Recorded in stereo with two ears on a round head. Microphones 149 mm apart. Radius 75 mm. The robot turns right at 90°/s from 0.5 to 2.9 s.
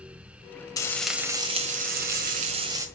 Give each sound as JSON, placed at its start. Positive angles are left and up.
{"t": 0.8, "sound": "frying", "azimuth_deg": 150, "distance_m": 1.8}